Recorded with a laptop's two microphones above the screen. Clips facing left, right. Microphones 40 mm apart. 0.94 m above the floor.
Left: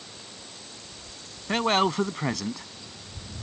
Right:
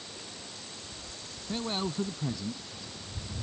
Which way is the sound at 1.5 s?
85° left.